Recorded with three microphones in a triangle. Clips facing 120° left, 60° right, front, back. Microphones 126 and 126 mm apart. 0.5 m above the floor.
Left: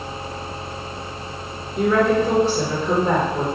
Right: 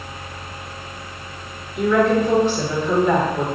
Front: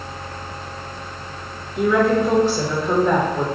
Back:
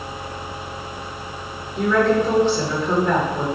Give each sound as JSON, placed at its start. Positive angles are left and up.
{"t": 1.8, "sound": "a woman speaking", "azimuth_deg": 75, "distance_m": 1.7}